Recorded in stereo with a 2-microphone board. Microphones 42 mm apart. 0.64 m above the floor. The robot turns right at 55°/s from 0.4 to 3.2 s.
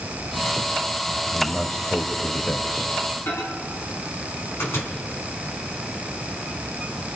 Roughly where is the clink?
No clink in this recording.